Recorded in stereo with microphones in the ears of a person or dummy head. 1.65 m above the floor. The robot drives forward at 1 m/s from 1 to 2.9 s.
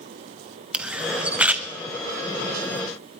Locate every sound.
0.7 s a camera shutter: 5° right (ahead or behind), 1.1 m; by 1.7 s 10° right (ahead or behind), 0.7 m